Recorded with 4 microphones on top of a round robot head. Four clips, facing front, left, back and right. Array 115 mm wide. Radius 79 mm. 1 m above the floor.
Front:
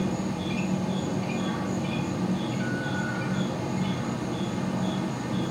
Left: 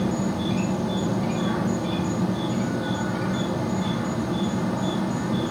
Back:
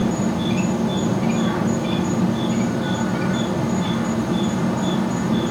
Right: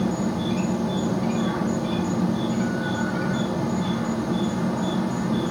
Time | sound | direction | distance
0.0 | an insect | 175° right | 0.8 m